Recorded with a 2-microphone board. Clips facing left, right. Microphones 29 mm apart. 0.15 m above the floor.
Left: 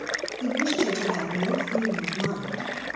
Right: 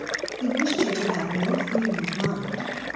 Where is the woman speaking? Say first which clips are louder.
Right 1 dB; 15° right (ahead or behind), 1.7 m.